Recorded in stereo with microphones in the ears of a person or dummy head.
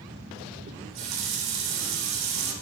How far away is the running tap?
About 0.7 m.